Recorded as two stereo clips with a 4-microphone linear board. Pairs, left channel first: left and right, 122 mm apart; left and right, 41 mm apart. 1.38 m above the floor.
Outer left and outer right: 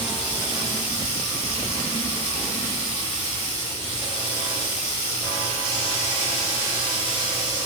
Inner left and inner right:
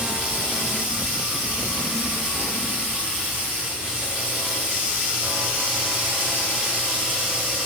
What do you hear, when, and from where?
0.0 s running water: 40° right (ahead or behind), 1.0 m